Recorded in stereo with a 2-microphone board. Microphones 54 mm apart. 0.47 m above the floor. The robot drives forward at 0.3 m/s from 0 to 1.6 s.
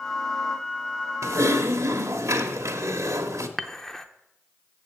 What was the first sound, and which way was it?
Typing on a keyboard, 70° right (ahead or behind).